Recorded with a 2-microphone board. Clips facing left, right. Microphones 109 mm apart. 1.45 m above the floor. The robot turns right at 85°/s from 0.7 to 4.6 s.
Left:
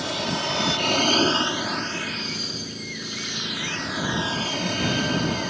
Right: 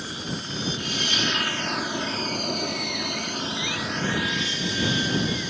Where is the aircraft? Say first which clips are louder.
Left 6 dB; 90° left; by 5.5 s 60° left.